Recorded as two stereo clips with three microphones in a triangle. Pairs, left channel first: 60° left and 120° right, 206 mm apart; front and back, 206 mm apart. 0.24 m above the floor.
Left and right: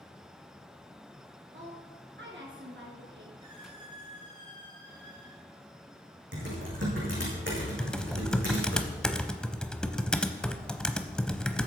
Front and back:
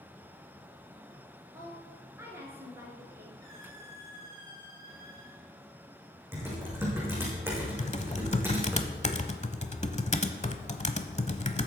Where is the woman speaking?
105° right, 4 m.